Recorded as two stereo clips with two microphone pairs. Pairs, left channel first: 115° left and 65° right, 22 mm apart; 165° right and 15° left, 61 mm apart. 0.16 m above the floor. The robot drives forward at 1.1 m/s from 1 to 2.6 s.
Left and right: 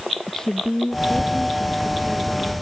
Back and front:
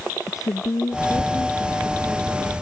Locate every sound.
0.3 s a woman speaking: straight behind